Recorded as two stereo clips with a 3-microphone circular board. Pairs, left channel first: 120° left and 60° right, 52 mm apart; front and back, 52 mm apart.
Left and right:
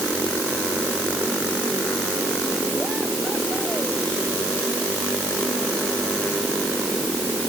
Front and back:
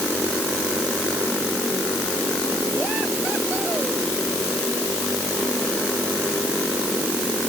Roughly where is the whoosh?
No whoosh in this recording.